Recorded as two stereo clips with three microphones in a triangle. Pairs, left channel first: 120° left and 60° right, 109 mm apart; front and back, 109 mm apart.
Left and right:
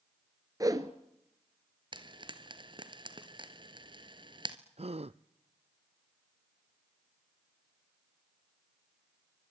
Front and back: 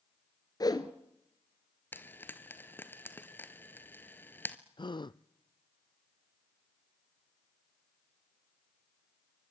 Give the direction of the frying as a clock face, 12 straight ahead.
2 o'clock.